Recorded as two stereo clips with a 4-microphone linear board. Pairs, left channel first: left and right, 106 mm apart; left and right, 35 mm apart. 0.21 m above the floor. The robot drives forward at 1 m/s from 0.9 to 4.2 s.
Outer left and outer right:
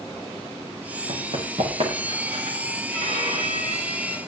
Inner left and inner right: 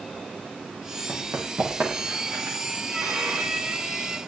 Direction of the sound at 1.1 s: 85° right.